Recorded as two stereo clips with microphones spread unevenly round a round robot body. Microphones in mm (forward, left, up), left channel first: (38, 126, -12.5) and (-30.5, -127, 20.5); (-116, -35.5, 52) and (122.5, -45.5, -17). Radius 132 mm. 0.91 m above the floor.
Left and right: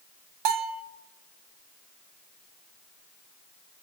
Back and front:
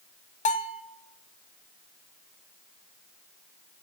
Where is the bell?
115° right, 0.6 m.